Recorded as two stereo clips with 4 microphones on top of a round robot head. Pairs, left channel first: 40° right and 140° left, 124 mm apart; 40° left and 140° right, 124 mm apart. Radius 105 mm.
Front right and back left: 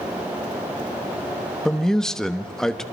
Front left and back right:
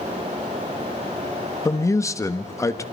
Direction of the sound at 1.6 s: 40° left.